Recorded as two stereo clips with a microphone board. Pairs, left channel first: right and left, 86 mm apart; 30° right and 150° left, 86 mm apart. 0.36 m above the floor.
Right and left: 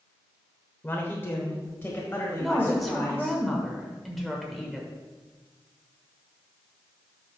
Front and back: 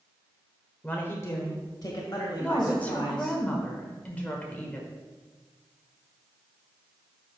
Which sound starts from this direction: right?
A man speaking, at 0.8 s.